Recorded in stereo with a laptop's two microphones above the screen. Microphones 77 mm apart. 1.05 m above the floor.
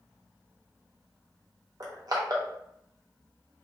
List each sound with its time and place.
1.8 s crushing: 55° right (ahead or behind), 0.6 m